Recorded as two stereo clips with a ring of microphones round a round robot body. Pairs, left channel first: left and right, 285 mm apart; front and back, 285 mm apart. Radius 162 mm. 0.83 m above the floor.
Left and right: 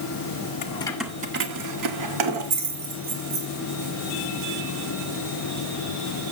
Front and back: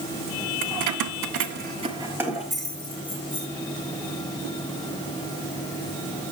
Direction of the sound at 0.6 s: 155° left.